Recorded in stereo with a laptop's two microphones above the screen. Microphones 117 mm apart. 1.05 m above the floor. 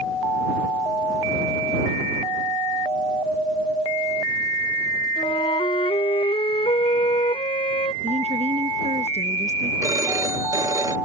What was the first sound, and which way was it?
A flute, 55° left (ahead or behind).